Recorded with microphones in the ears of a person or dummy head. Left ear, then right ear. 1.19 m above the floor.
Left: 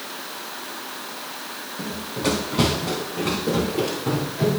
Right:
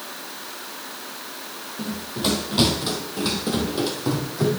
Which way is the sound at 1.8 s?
15° right (ahead or behind).